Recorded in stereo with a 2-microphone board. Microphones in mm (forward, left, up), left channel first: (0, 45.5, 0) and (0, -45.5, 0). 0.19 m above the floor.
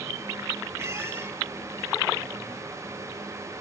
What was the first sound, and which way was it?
A squeak, 30° right (ahead or behind).